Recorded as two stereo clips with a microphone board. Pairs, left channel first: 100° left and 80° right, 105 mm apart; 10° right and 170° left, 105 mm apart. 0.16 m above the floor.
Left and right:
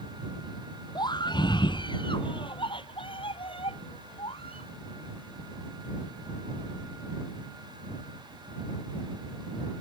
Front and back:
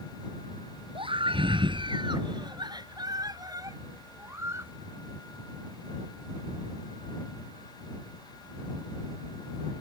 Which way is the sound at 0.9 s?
145° left.